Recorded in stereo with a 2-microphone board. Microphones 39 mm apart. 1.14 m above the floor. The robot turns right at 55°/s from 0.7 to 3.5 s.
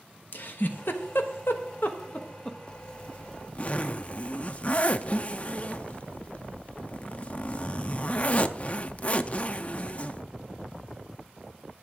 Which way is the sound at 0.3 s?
60° left (ahead or behind).